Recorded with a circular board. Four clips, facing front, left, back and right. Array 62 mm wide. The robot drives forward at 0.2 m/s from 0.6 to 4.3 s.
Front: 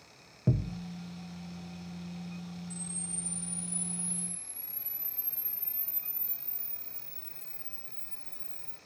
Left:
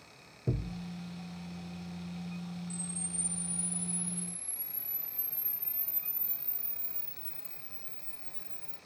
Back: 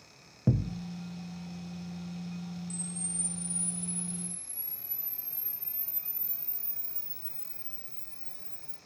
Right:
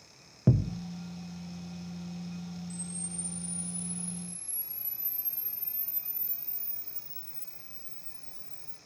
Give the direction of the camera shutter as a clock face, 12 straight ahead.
7 o'clock.